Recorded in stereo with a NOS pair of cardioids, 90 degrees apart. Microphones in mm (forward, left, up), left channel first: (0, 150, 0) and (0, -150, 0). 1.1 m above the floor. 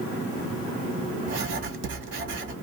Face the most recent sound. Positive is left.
turn(degrees=-40)